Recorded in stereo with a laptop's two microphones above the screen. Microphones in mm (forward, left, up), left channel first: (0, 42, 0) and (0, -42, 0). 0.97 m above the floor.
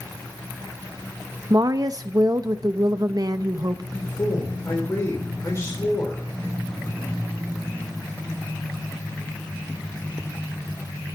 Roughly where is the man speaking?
Left.